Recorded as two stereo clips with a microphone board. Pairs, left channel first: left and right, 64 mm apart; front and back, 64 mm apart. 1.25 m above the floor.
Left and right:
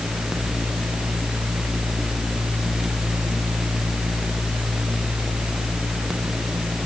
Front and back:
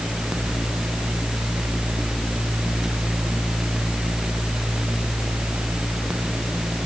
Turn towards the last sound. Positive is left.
No sound to turn to.